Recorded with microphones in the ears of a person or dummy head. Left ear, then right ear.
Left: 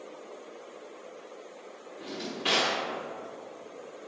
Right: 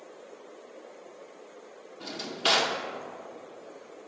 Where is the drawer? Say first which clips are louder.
Right 4 dB; 40° right (ahead or behind), 0.8 m.